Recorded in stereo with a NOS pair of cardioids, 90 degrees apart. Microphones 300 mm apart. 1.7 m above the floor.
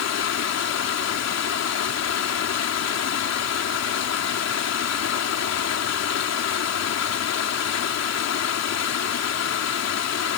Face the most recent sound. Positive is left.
turn(degrees=60)